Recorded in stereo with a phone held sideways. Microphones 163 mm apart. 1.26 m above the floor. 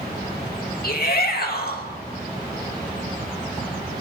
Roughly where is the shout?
Left.